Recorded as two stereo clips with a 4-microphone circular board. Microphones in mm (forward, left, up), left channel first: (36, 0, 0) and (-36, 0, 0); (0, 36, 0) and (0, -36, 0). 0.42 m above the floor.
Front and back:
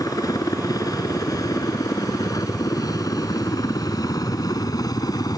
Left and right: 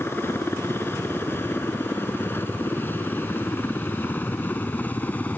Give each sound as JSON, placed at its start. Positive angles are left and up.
{"t": 0.0, "sound": "a helicopter", "azimuth_deg": 35}